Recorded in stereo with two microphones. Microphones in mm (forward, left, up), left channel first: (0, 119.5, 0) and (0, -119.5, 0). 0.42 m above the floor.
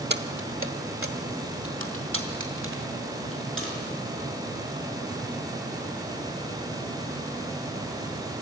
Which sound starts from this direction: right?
Keys jangling, at 0.1 s.